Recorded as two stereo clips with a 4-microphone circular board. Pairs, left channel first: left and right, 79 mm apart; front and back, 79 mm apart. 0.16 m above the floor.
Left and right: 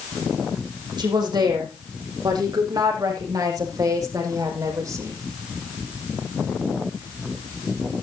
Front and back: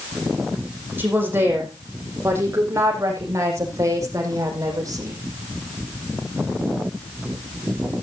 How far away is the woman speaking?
About 7 m.